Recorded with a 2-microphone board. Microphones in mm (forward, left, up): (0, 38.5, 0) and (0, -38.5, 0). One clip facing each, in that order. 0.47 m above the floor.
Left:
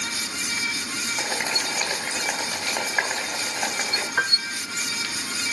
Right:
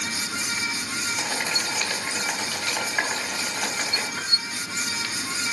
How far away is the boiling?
About 2.5 m.